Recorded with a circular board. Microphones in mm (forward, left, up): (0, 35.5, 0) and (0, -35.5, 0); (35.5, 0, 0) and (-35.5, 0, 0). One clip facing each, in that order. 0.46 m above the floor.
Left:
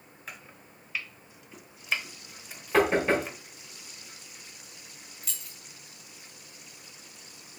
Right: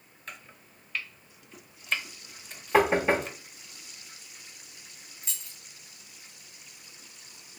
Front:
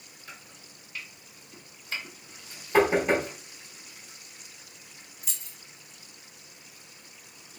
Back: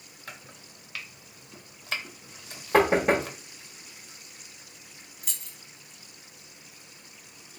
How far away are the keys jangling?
About 1.7 m.